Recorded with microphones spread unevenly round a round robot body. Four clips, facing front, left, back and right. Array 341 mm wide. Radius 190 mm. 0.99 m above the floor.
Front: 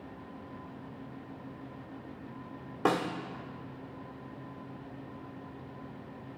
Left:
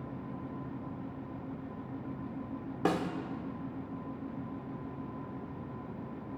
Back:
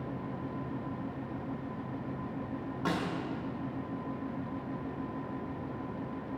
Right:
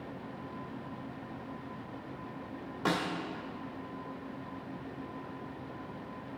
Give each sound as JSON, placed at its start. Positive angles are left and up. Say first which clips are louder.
{"t": 2.9, "sound": "a snare drum", "louder": "left 1 dB, front 5 dB", "azimuth_deg": 65, "distance_m": 1.1}